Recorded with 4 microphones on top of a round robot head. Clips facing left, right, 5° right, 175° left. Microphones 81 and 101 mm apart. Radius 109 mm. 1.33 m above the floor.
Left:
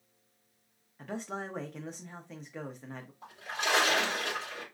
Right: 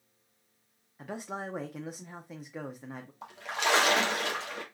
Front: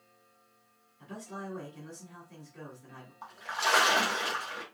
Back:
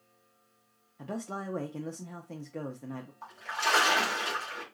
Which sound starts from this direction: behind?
A man speaking, at 1.0 s.